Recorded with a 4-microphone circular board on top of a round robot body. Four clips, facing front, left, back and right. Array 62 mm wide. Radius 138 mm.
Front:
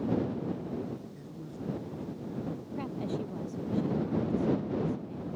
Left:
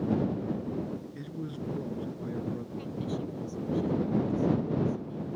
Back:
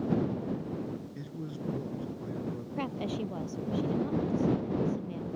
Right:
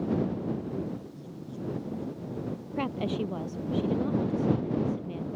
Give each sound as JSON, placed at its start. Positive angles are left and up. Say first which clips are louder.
{"t": 1.1, "sound": "a man speaking", "louder": "left 2 dB, back 3 dB", "azimuth_deg": 110}
{"t": 2.8, "sound": "a woman speaking", "louder": "right 5 dB, back 1 dB", "azimuth_deg": -110}